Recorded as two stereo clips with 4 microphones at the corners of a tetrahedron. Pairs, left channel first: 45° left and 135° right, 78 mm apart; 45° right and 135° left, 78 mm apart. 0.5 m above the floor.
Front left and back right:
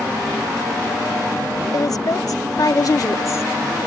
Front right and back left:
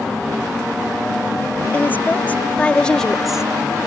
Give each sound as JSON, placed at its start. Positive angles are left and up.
{"t": 1.7, "sound": "a woman speaking", "azimuth_deg": 15}